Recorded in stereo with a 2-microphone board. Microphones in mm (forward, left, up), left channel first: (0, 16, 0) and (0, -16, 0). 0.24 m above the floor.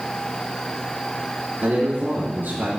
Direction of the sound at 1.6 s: 60° right (ahead or behind).